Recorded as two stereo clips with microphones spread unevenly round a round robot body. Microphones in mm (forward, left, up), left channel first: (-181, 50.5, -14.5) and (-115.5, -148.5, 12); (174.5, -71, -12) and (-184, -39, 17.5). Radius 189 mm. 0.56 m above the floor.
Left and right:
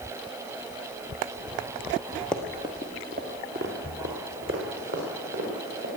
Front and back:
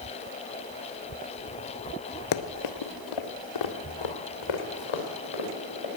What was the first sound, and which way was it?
Running footsteps, 15° left.